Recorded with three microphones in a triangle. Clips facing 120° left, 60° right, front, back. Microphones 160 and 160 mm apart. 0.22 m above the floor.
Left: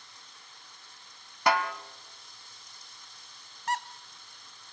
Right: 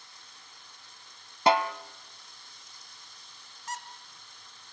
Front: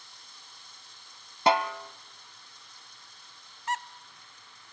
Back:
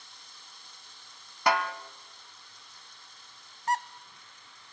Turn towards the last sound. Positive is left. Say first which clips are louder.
# left 8 dB, back 4 dB
turn(degrees=135)